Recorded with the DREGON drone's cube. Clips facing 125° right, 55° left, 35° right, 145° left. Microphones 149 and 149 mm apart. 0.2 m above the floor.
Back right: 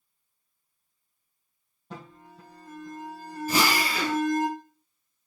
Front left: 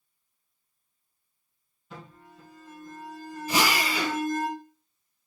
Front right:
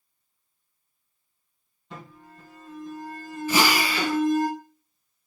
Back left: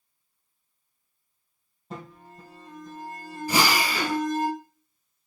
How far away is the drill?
About 3.5 m.